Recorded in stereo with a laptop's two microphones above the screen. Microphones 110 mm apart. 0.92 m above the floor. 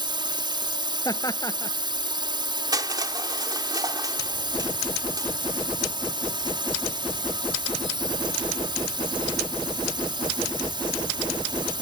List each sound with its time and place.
0.0 s a drone: 45° right (ahead or behind)
1.1 s laughter: 30° left (ahead or behind)
2.7 s crushing: 35° right (ahead or behind)